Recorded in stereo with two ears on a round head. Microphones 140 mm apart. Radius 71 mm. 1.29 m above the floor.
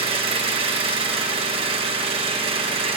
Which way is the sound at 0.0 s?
35° right (ahead or behind).